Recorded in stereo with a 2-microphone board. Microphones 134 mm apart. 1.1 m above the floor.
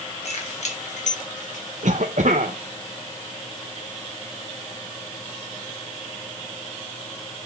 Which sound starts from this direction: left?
Keys jangling, at 0.2 s.